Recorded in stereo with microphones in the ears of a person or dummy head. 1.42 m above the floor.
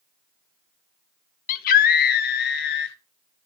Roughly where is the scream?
Left.